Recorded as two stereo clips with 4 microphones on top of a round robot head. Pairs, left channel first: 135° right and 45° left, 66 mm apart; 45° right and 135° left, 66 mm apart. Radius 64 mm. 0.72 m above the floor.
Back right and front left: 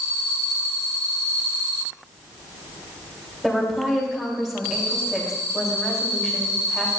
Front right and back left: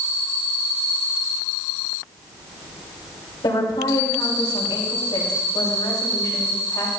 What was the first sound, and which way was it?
A woman speaking, 40° right.